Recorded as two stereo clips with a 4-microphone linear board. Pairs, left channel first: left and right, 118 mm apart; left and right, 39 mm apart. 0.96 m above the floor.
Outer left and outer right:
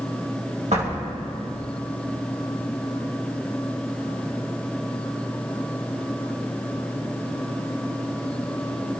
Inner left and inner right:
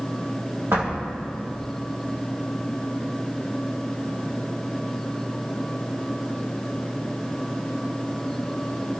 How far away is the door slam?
About 3 m.